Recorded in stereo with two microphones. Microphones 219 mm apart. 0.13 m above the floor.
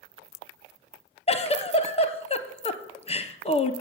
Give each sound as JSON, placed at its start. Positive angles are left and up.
{"t": 1.3, "sound": "a giggle", "side_deg": 30, "distance_m": 0.6}